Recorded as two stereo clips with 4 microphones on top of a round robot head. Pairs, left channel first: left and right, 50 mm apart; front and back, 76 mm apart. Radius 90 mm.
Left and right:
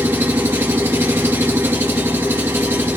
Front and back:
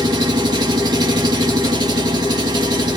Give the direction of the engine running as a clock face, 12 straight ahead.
5 o'clock.